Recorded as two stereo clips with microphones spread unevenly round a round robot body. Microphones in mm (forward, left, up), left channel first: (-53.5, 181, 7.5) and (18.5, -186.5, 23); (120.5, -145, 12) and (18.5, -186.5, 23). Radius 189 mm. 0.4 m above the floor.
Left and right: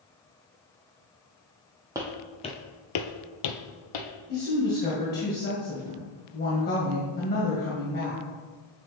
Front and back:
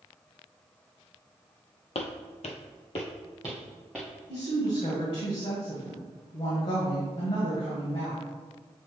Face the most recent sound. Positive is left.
turn(degrees=40)